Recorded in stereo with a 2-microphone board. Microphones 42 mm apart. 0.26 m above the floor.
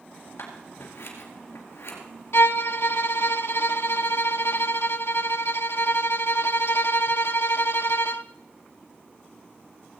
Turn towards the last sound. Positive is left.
turn(degrees=70)  # may be behind; listen again after turning